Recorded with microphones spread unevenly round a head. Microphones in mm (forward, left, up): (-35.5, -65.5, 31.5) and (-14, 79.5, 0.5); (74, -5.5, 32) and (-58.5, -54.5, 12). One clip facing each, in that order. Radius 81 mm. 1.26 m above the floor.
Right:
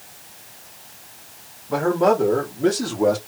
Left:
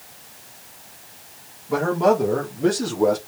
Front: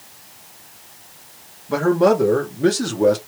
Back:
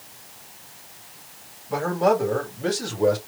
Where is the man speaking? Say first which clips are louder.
Right 1 dB, front 5 dB; 5° right, 3 m; by 3.2 s 15° right, 2 m.